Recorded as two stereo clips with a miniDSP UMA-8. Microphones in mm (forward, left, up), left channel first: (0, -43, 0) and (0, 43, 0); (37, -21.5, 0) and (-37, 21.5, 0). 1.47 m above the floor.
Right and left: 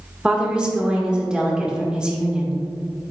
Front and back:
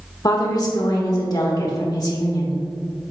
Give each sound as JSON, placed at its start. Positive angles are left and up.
{"t": 0.2, "sound": "a woman speaking", "azimuth_deg": 10, "distance_m": 1.5}